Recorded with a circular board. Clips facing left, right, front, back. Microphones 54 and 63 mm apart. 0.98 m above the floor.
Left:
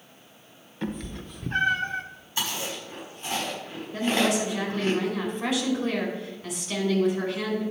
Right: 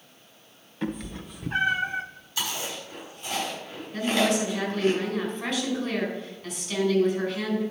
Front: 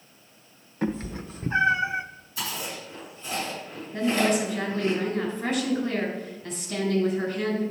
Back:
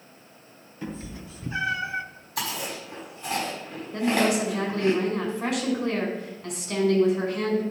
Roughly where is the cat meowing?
Ahead.